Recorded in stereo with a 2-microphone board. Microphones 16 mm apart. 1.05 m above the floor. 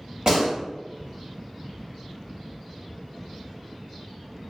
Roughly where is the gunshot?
Right.